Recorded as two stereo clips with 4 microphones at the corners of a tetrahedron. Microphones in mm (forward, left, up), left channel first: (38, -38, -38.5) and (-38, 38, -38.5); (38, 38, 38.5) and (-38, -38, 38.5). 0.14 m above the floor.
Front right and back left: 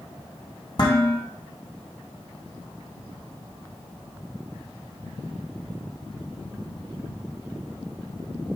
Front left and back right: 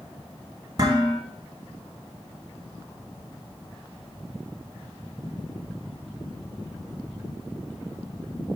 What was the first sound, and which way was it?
Dishes clattering, 90° right.